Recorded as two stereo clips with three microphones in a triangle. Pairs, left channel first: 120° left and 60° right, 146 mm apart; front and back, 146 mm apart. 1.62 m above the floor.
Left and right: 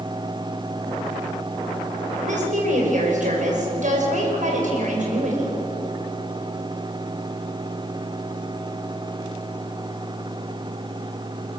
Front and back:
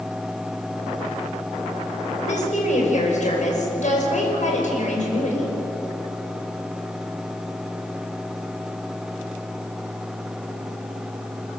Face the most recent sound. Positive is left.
turn(degrees=-30)